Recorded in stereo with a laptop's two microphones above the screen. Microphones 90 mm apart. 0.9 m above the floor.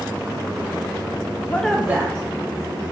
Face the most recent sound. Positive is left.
turn(degrees=-40)  # may be behind; listen again after turning